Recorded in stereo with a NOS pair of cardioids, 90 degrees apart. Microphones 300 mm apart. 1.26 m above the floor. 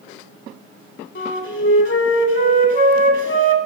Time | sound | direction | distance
1.1 | a flute | 40° left | 1.8 m